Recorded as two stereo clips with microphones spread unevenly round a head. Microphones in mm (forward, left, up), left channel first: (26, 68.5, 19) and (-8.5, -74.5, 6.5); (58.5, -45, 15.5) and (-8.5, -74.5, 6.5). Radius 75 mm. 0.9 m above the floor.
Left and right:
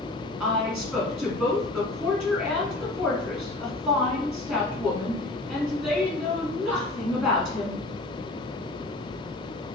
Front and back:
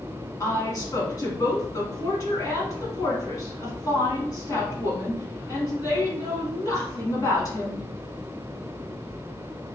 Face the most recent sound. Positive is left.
turn(degrees=-20)